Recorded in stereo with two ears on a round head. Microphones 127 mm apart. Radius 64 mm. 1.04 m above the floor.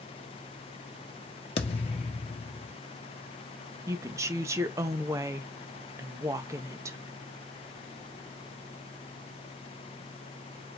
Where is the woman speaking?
20° right (ahead or behind), 0.7 m.